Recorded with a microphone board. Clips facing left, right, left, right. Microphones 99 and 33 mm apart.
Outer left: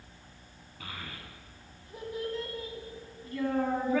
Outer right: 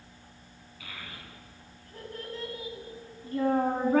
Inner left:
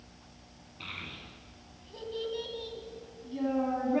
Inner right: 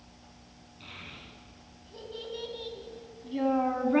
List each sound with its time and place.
0.8 s a child speaking: 45° left (ahead or behind), 1.1 m; by 4.0 s 50° right (ahead or behind), 1.1 m